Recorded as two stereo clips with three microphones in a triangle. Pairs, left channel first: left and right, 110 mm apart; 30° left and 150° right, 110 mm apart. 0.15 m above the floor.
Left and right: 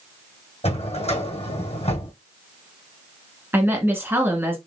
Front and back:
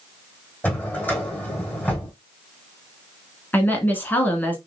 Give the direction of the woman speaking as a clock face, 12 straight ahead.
1 o'clock.